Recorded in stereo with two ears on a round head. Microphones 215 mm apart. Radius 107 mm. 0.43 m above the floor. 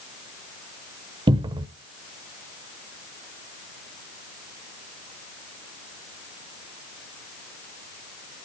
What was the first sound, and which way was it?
A cupboard door, 20° right (ahead or behind).